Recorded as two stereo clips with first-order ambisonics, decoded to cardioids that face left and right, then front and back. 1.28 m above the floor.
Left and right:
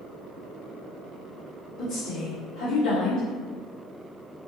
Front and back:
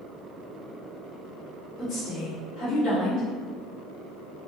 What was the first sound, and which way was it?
A woman speaking, 50° left.